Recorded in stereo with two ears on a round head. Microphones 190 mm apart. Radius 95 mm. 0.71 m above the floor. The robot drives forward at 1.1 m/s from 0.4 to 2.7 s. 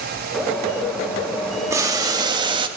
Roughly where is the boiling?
Centre.